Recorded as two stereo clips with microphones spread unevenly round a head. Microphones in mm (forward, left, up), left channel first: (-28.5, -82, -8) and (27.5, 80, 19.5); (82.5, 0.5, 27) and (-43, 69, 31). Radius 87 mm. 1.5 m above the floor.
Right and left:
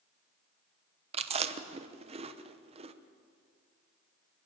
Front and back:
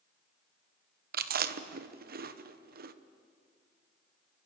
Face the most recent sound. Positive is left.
turn(degrees=130)